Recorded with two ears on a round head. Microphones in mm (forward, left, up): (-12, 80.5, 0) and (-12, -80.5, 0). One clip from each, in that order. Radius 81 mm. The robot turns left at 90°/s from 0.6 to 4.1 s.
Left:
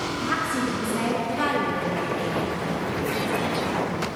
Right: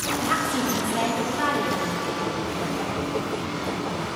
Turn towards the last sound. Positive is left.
turn(degrees=-85)